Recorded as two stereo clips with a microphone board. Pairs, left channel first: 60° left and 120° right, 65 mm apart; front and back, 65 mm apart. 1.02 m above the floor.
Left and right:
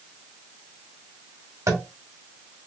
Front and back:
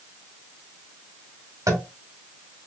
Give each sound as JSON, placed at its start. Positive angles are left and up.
{"t": 1.7, "sound": "tapping", "azimuth_deg": -150, "distance_m": 1.1}